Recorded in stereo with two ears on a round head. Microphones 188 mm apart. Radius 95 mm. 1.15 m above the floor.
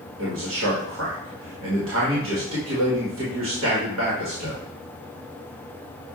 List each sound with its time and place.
0.2 s a man speaking: 60° right (ahead or behind), 1.4 m